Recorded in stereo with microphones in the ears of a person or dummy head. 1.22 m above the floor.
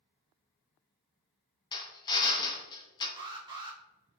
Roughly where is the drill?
Left.